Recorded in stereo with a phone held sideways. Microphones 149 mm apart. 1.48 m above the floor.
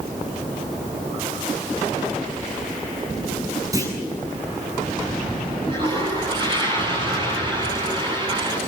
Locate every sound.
3.7 s a clunk: 25° right (ahead or behind), 8.5 m
5.7 s a toilet flushing: 30° right (ahead or behind), 10 m